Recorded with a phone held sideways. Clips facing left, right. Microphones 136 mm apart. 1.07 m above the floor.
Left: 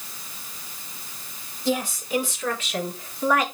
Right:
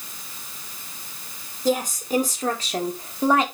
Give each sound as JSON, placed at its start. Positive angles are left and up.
{"t": 1.6, "sound": "a woman speaking", "side_deg": -40, "distance_m": 3.0}